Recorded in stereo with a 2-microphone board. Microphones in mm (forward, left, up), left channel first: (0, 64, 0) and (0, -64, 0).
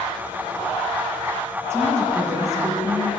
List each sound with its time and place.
1.7 s a woman speaking: 20° right (ahead or behind), 3.5 m; by 3.1 s 25° right (ahead or behind), 5 m